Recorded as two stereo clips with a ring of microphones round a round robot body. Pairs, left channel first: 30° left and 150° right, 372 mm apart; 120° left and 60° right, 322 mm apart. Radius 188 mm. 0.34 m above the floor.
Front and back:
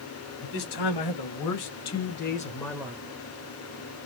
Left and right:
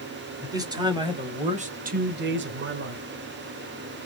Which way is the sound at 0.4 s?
20° left.